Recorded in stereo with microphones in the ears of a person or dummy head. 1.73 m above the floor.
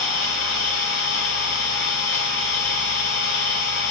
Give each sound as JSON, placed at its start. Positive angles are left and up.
{"t": 0.0, "sound": "an engine running", "side_deg": 55, "distance_m": 2.5}